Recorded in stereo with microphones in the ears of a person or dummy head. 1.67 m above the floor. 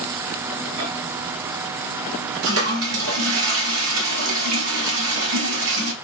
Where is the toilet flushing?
85° right, 1.1 m.